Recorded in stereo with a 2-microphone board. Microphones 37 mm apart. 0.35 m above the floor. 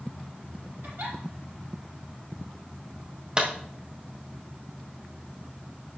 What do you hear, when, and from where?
0.8 s a giggle: 60° right (ahead or behind), 4.5 m
3.4 s a clap: 25° right (ahead or behind), 1.8 m